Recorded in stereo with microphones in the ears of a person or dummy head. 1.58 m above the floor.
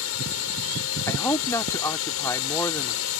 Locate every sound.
0.0 s a drone: 75° left (ahead or behind)
1.1 s a man speaking: 15° left (ahead or behind)